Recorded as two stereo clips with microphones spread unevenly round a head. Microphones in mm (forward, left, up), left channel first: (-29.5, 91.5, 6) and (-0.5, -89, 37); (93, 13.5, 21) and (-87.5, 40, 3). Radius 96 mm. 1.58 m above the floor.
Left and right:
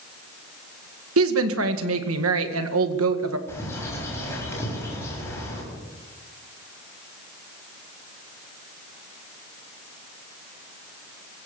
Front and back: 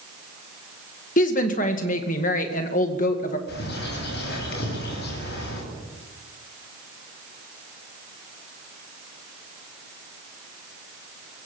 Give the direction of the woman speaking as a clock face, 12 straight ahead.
2 o'clock.